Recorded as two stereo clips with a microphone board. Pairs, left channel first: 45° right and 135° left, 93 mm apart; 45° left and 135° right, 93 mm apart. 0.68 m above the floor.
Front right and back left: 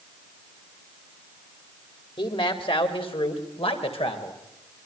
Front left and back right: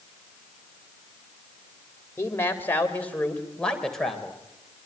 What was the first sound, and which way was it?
A man speaking, 20° right.